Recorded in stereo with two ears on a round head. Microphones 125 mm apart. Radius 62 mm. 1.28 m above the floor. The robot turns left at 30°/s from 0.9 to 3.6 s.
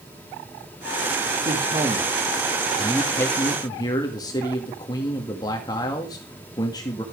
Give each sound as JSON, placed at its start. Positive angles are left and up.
{"t": 1.4, "sound": "a man speaking", "azimuth_deg": -145, "distance_m": 1.8}